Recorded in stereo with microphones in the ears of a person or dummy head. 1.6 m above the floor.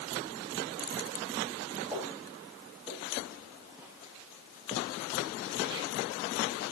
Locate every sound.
1.9 s footsteps: 10° right (ahead or behind), 6 m; by 6.6 s 30° right (ahead or behind), 3.5 m